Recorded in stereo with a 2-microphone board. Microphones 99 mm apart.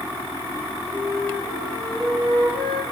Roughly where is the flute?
Right.